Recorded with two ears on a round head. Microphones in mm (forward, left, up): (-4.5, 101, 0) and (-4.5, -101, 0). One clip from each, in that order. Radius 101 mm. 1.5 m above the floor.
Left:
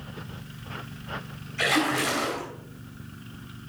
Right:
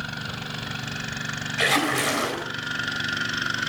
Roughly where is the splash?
Centre.